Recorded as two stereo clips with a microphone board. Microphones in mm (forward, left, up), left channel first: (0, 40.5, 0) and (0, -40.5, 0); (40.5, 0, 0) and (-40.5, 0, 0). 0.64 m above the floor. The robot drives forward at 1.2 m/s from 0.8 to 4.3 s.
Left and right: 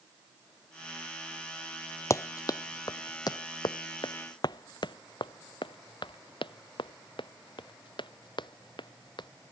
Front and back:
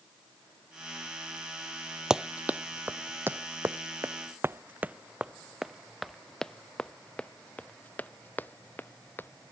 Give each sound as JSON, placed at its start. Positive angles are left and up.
{"t": 2.1, "sound": "running footsteps", "azimuth_deg": 105}